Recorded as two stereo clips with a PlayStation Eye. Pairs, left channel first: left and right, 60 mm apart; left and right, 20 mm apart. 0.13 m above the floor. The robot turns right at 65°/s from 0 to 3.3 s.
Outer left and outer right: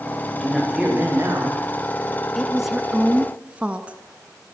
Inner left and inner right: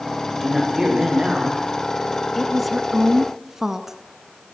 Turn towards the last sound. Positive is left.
turn(degrees=-20)  # may be behind; listen again after turning